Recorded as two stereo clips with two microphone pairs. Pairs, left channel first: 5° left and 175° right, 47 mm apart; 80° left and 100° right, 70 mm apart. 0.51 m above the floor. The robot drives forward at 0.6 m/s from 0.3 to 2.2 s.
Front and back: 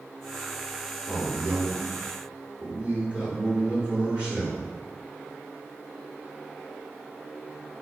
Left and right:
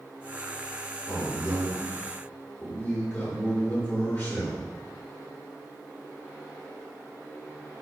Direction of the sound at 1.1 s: 105° left.